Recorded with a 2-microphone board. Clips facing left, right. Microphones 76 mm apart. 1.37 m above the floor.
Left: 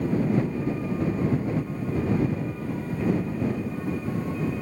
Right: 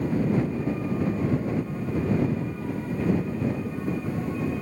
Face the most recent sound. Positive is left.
No sound to turn to.